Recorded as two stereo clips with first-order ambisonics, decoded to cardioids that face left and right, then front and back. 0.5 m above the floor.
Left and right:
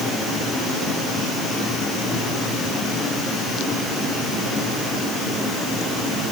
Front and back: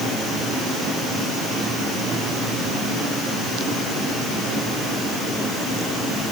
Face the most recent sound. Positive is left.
No sound to turn to.